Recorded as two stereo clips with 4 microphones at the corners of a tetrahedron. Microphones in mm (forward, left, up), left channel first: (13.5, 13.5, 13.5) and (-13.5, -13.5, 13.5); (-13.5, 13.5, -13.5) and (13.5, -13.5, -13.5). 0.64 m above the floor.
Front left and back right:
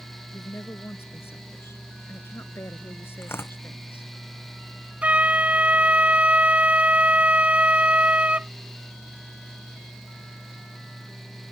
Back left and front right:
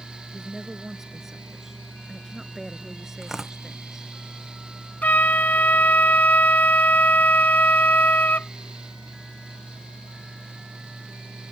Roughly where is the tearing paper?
Ahead left.